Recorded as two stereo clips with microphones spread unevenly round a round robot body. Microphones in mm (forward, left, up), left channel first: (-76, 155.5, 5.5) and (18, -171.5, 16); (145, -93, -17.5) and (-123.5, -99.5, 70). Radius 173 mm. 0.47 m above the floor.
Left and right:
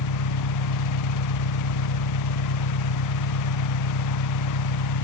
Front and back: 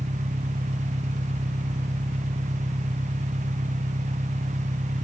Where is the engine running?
110° left.